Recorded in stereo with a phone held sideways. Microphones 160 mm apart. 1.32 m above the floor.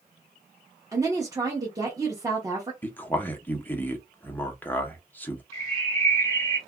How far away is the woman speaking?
About 0.9 m.